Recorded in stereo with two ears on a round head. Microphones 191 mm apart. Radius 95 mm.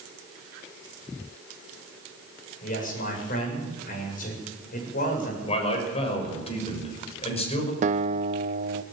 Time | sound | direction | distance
2.6 | a man speaking | 40° left (ahead or behind) | 7 m
5.5 | a man speaking | 30° left (ahead or behind) | 5.5 m
7.8 | a guitar | 35° right (ahead or behind) | 0.8 m